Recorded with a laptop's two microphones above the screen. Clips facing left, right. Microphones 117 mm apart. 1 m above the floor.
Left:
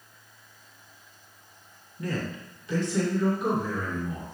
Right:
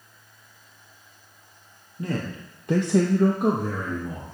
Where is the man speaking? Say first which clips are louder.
Right 2 dB; 25° right (ahead or behind), 1.6 m.